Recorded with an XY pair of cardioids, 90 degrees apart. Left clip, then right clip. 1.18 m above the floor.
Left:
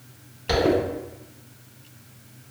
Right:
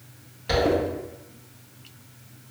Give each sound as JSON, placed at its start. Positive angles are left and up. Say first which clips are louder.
{"t": 0.5, "sound": "a zipper", "louder": "left 1 dB", "azimuth_deg": 30, "distance_m": 1.3}